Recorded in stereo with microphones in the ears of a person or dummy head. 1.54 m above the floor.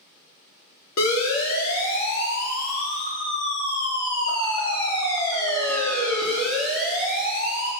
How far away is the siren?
About 4 m.